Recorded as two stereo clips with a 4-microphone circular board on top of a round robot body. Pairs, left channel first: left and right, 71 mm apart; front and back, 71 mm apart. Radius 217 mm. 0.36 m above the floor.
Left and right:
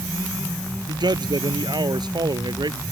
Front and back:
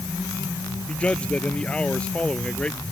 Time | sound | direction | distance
0.9 | a man speaking | 75° right | ?